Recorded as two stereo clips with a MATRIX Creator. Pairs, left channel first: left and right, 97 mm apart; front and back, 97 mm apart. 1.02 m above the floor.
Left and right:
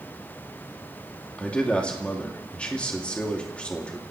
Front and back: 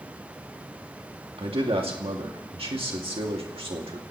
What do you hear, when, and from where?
1.4 s a man speaking: 170° left, 2 m